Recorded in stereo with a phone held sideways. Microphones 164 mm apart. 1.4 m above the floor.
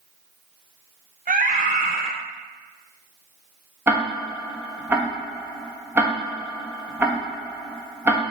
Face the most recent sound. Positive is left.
turn(degrees=-15)  # may be behind; listen again after turning